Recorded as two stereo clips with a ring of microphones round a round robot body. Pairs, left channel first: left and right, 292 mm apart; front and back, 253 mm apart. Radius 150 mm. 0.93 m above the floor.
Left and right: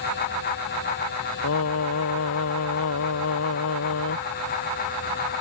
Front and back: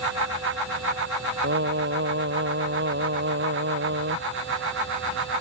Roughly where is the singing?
Behind left.